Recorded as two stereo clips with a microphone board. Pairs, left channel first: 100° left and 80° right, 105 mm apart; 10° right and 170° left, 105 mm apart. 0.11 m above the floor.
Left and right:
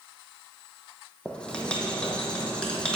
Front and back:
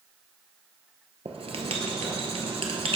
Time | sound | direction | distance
1.2 | writing | straight behind | 0.8 m